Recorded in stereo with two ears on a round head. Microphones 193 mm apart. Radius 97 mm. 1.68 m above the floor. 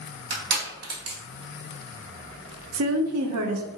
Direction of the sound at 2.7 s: 75° right (ahead or behind).